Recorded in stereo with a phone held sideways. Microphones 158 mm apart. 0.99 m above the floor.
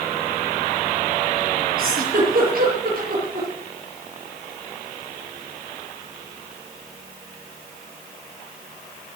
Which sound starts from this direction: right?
A giggle, at 1.8 s.